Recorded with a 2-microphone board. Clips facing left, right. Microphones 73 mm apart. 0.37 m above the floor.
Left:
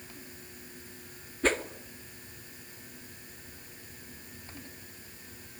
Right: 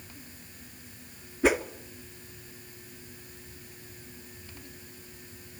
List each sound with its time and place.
1.4 s a whoosh: 10° right (ahead or behind), 0.9 m